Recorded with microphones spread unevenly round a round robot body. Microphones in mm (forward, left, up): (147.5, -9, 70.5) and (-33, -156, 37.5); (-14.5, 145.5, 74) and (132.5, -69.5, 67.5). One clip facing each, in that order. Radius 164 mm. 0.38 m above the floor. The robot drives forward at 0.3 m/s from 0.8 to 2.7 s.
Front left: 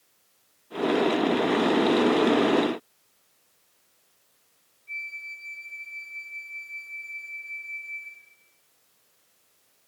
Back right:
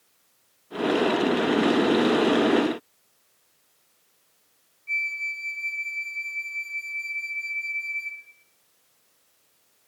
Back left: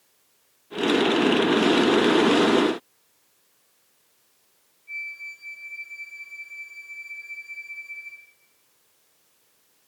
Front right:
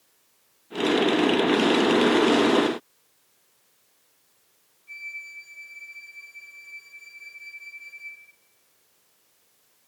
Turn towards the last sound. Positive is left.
turn(degrees=-150)